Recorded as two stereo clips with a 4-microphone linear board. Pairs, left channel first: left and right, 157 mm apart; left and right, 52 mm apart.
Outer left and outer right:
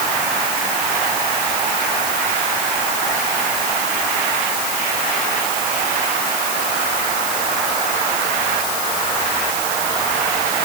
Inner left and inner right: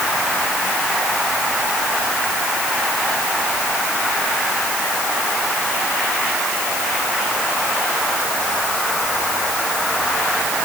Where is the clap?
No clap in this recording.